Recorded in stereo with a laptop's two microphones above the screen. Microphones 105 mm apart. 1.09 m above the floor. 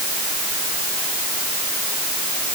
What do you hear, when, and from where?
Only background noise.